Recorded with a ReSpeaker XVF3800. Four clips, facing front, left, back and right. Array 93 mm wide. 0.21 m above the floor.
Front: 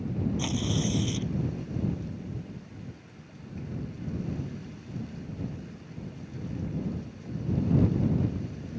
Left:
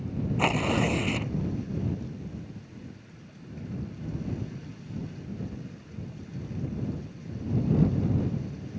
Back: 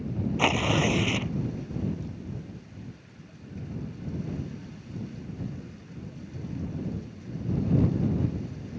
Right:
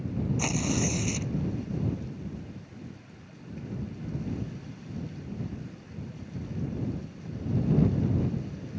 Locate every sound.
0.4 s tearing paper: 145° left